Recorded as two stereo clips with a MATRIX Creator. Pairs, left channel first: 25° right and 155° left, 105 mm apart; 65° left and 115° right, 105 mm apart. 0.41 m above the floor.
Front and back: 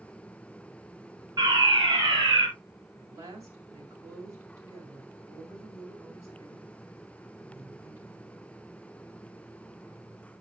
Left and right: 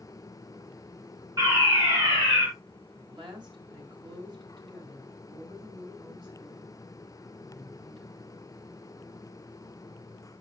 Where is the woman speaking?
145° right, 5 m.